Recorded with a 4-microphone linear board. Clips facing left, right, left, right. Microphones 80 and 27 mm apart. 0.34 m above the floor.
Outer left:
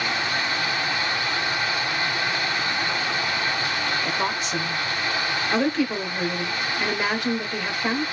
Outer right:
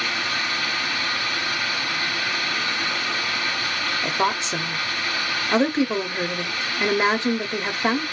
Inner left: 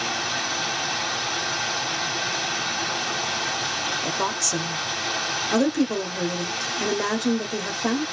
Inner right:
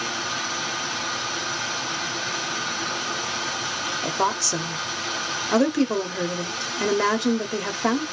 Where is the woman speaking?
25° right (ahead or behind), 0.9 m.